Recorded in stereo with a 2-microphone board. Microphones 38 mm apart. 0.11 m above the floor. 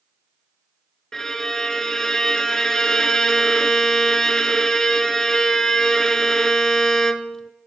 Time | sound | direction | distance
1.1 | a violin | 15° left (ahead or behind) | 0.7 m